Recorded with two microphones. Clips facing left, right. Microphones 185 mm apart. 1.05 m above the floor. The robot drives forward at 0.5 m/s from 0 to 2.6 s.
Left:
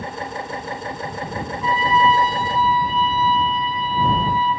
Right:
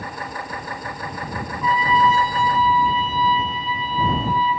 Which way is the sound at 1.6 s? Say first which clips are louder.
Even; 25° left (ahead or behind).